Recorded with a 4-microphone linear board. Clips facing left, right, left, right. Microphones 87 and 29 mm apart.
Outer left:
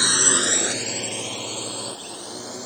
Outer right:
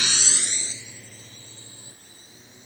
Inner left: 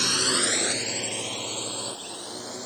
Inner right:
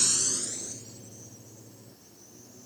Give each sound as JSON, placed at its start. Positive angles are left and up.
{"t": 0.0, "sound": "a drone", "side_deg": 30}